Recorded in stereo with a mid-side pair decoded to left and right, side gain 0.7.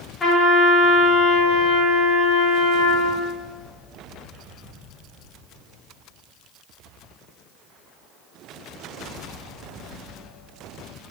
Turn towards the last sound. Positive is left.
turn(degrees=25)